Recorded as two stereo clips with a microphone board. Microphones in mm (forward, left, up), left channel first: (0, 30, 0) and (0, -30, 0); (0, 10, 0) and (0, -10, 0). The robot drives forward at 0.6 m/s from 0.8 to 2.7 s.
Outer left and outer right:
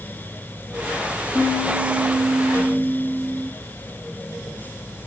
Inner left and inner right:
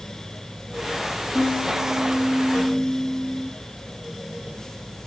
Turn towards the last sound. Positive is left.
turn(degrees=-50)  # may be behind; listen again after turning